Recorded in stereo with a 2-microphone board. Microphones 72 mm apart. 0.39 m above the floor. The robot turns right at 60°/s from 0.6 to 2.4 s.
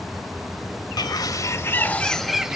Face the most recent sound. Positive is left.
turn(degrees=-170)